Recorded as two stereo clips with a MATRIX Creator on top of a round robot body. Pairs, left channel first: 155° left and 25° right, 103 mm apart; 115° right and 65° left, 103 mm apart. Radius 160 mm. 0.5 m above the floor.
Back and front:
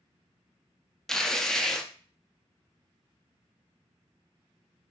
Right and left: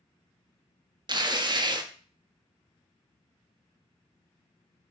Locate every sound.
1.1 s tearing paper: 75° left, 0.8 m